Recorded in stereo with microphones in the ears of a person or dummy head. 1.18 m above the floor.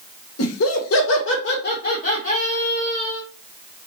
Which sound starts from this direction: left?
Laughter, at 0.4 s.